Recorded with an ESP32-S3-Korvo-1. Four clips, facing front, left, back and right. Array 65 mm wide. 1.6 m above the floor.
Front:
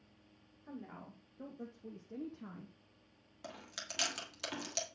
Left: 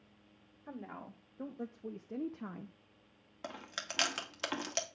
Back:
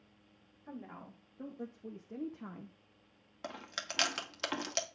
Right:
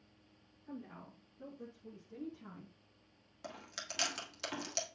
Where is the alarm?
No alarm in this recording.